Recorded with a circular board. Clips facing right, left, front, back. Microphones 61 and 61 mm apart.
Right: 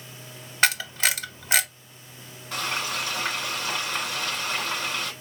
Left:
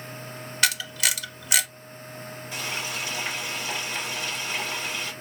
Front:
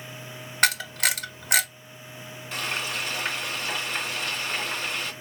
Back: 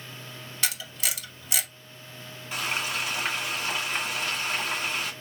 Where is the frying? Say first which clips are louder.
Right 4 dB, back 1 dB; 105° right, 2.5 m.